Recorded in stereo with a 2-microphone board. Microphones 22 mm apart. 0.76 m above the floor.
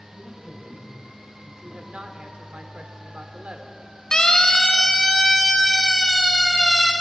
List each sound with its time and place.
0.1 s a man speaking: 15° left (ahead or behind), 5 m; by 2.1 s 35° left (ahead or behind), 4 m
1.6 s a woman speaking: 70° right (ahead or behind), 2.5 m
4.1 s a siren: 35° left (ahead or behind), 2 m; by 6.9 s 20° left (ahead or behind), 5 m